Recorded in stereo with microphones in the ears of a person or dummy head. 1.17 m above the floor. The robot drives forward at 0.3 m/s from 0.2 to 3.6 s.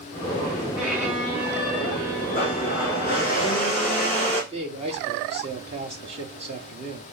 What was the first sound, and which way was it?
A violin, centre (ahead or behind).